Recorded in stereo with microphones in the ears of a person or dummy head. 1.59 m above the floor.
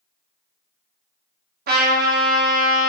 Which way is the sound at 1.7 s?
55° right (ahead or behind).